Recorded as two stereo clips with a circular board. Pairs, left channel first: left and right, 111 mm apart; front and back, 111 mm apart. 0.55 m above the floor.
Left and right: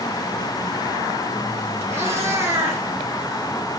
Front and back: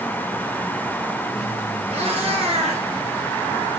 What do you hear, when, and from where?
1.9 s a cat meowing: 155° right, 5 m; by 3.8 s 170° right, 3.5 m